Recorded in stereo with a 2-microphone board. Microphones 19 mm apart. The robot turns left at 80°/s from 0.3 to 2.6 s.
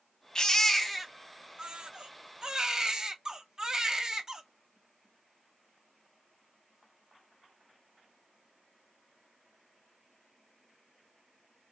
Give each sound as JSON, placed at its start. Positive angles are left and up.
{"t": 0.3, "sound": "a baby crying", "azimuth_deg": 45, "distance_m": 0.6}